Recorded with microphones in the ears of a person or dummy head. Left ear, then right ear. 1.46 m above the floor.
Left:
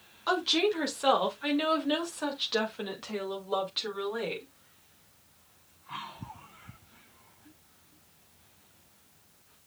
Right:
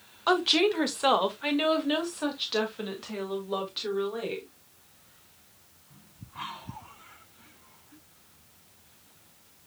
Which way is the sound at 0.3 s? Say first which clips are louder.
Right 3 dB; 20° right (ahead or behind).